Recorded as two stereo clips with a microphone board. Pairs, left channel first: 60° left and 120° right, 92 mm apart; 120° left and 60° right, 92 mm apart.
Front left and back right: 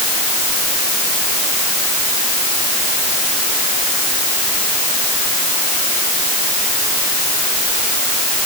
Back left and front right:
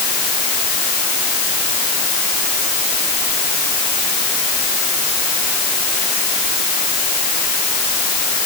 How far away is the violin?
I don't hear a violin.